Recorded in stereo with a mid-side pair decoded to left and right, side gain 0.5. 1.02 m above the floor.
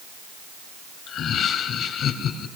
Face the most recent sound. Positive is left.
turn(degrees=65)